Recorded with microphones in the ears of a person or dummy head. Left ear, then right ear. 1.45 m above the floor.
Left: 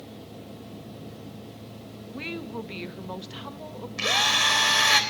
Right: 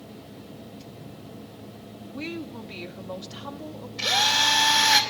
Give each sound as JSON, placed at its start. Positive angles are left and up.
{"t": 2.1, "sound": "a woman speaking", "side_deg": 15, "distance_m": 1.1}
{"t": 4.0, "sound": "a drill", "side_deg": 40, "distance_m": 3.5}